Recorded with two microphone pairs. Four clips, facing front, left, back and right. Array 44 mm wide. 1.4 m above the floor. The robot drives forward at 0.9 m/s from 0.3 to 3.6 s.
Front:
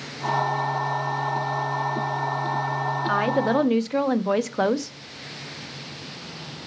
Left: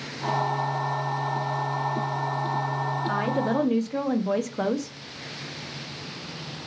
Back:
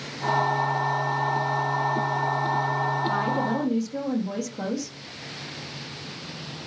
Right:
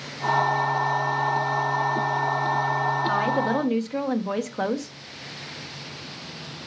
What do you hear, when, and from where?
3.0 s a woman speaking: 5° right, 1.3 m; by 5.0 s 10° right, 0.8 m